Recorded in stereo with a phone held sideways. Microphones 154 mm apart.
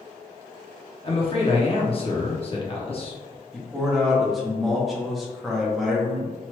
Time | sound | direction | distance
1.0 | a man speaking | 40° left (ahead or behind) | 0.8 m
3.5 | a man speaking | centre (ahead or behind) | 0.8 m